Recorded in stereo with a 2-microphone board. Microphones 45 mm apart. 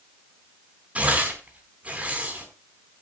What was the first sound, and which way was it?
Tearing paper, 25° right (ahead or behind).